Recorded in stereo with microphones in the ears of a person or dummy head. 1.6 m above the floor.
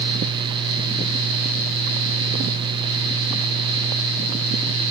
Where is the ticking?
I don't hear ticking.